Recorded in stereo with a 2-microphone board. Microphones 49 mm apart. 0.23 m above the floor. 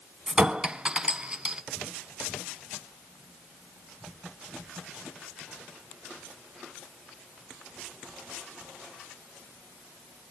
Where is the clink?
20° right (ahead or behind), 1.1 m.